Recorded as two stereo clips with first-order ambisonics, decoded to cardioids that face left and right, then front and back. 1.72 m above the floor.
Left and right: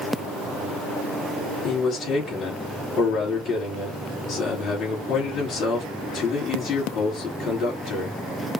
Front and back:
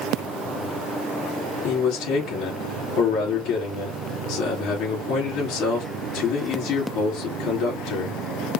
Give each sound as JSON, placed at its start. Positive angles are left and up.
{"t": 1.6, "sound": "a man speaking", "azimuth_deg": 35, "distance_m": 3.0}